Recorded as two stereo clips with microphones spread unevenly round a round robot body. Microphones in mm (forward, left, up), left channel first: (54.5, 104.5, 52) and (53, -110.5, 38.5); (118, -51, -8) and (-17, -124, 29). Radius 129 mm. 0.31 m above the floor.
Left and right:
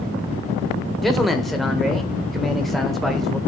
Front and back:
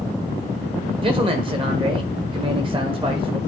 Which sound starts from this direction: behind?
A man speaking, at 1.0 s.